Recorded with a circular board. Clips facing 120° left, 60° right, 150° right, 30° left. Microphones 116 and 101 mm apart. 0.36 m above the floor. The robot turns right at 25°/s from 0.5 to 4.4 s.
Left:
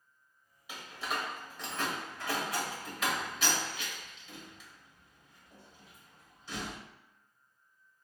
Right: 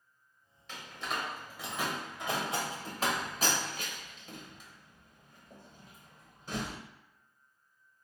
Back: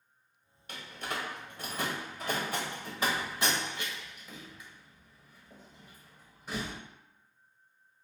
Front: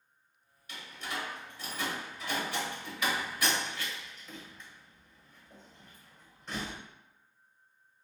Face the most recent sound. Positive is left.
turn(degrees=-70)